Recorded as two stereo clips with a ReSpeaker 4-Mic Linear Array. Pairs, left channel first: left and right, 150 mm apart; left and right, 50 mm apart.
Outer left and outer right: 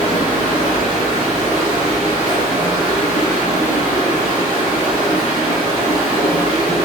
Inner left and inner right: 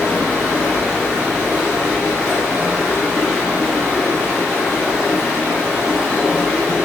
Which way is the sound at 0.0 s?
10° right (ahead or behind).